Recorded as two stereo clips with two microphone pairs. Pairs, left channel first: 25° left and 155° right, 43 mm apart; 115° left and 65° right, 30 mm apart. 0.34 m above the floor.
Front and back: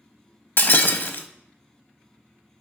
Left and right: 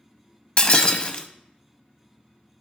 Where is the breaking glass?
60° left, 0.6 m.